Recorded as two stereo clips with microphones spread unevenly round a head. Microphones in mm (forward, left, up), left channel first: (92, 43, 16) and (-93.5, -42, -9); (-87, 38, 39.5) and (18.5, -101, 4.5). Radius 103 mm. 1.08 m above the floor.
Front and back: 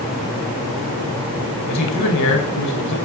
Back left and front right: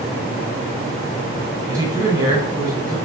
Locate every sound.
1.7 s a man speaking: 20° left, 5 m